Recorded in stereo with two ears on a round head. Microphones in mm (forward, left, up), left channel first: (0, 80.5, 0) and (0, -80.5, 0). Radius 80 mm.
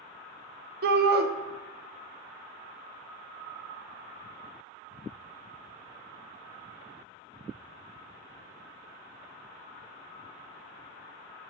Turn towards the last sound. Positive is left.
turn(degrees=-55)  # may be behind; listen again after turning